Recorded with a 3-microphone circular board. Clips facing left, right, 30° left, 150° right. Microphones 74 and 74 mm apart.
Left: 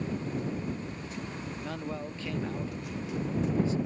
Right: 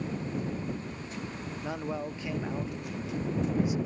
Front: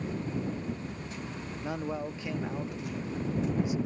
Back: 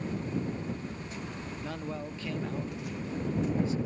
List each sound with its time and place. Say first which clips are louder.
1.6 s a man speaking: right 4 dB, front 5 dB; 25° right